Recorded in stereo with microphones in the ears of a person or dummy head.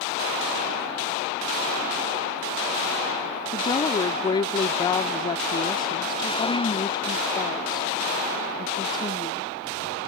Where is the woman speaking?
25° left (ahead or behind).